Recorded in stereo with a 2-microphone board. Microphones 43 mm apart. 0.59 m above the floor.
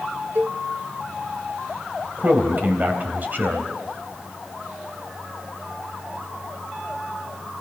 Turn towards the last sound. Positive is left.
turn(degrees=-40)  # may be behind; listen again after turning